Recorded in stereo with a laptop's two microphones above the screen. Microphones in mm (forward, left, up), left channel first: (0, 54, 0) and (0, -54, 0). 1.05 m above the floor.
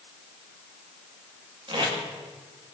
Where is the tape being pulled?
50° right (ahead or behind), 1.9 m.